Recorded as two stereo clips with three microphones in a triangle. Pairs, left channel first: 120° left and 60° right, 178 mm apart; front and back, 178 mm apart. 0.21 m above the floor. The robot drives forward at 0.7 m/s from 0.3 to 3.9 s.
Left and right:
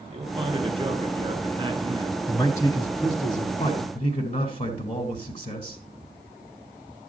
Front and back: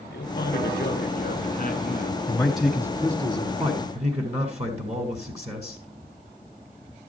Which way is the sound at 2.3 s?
65° left.